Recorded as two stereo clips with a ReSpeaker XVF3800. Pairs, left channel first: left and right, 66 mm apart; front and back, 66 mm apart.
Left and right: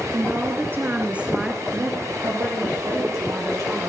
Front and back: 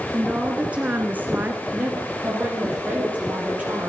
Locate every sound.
0.1 s a woman speaking: 110° right, 1.5 m; by 1.6 s 170° right, 1.2 m
1.7 s a woman speaking: 115° right, 3 m